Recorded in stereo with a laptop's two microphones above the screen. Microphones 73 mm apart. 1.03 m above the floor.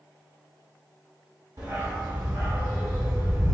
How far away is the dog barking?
About 1.0 m.